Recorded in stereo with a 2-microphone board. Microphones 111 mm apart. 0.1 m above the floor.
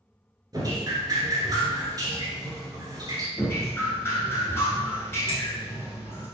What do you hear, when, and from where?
0.5 s dripping: 35° right (ahead or behind), 1.2 m
3.4 s dripping: 20° left (ahead or behind), 1.1 m
5.3 s a finger snap: 55° left (ahead or behind), 1.5 m